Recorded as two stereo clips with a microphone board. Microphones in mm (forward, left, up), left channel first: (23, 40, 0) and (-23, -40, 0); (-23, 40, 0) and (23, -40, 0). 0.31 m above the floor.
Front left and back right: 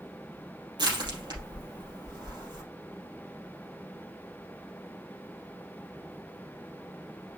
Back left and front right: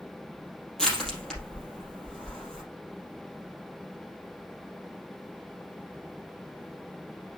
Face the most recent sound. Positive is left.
turn(degrees=-155)